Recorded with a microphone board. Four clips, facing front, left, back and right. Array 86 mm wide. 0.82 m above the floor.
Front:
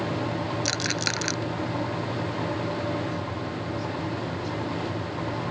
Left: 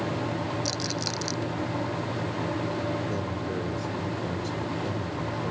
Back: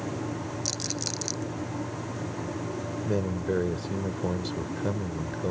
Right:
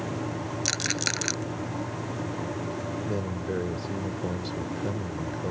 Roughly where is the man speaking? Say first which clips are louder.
Even, back 3 dB; behind.